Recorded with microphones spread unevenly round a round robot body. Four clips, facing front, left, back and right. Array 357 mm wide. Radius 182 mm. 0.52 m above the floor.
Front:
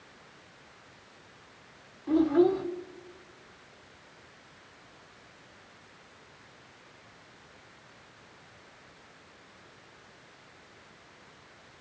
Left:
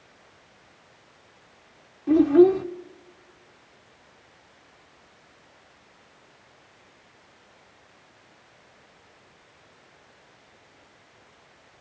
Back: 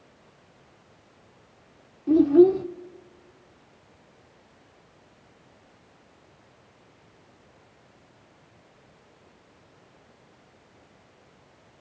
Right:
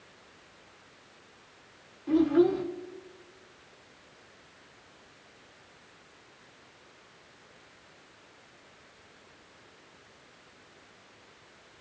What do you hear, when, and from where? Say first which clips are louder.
2.1 s a child speaking: left 7 dB, back 7 dB; 145° left, 1.0 m